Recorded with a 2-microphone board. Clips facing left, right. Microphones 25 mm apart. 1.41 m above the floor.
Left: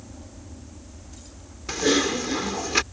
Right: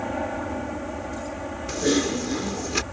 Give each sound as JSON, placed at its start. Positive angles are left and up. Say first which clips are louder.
{"t": 0.0, "sound": "an aircraft", "louder": "right 17 dB", "side_deg": -65}
{"t": 1.7, "sound": "typing on a keyboard", "louder": "left 1 dB", "side_deg": 20}